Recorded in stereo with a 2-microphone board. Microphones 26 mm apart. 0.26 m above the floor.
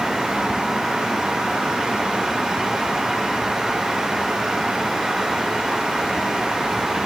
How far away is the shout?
I don't hear a shout.